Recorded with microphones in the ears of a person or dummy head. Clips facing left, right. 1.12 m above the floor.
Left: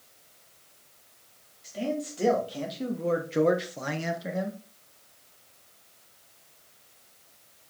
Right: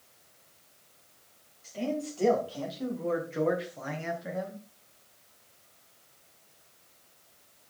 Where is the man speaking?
10° left (ahead or behind), 2.5 m; by 4.6 s 35° left (ahead or behind), 1.4 m.